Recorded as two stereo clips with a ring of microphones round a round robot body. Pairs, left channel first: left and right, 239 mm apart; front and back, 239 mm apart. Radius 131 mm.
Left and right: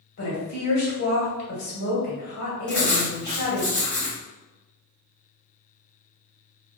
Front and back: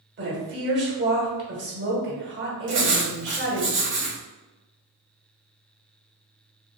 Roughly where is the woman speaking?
Behind left.